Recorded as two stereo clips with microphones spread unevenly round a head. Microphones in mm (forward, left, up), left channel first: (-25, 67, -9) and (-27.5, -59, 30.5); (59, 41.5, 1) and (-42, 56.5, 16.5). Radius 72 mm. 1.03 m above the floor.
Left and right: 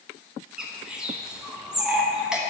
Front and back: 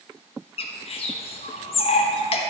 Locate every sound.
0.6 s a bird: straight ahead, 1.1 m